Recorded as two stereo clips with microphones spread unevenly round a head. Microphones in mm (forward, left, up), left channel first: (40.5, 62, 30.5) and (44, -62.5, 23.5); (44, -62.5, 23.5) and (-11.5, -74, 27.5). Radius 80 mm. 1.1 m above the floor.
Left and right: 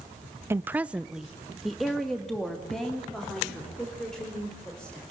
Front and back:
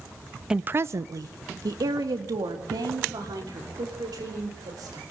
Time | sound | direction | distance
0.5 | a woman speaking | 95° right | 0.5 m